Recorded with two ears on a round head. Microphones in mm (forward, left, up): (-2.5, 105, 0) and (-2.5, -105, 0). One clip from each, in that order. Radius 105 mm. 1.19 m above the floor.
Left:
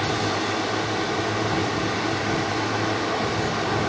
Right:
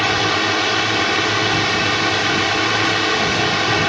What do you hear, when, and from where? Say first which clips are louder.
0.0 s a drone: right 7 dB; 70° right (ahead or behind)